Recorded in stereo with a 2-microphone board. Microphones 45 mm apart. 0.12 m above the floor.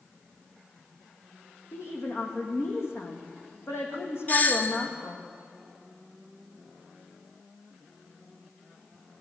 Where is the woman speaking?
70° left (ahead or behind), 5.5 m.